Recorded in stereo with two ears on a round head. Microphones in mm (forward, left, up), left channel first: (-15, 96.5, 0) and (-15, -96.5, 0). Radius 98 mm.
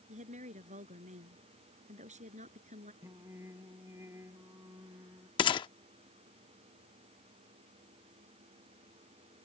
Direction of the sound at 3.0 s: 15° right (ahead or behind).